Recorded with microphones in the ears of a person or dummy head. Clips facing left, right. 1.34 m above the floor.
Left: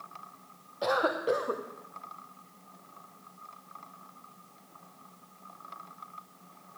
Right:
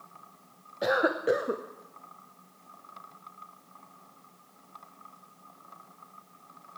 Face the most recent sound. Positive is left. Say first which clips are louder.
# right 2 dB
turn(degrees=-10)  # may be behind; listen again after turning